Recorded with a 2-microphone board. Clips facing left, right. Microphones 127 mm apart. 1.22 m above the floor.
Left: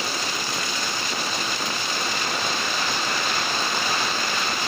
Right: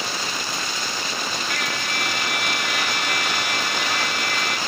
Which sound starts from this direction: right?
A trumpet, at 1.5 s.